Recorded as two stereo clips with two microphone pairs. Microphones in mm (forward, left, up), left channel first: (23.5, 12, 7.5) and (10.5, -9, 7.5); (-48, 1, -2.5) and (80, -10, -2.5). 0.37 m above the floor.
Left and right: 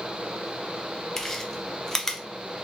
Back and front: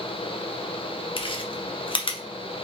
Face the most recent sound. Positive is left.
turn(degrees=125)